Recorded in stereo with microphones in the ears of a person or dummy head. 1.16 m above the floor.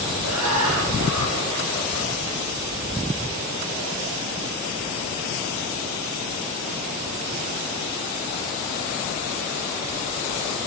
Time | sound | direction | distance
0.2 | laughter | 75° right (ahead or behind) | 0.9 m